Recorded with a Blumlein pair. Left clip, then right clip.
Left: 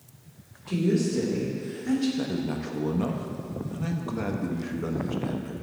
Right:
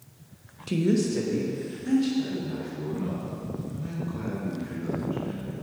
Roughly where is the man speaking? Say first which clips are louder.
Even; ahead left.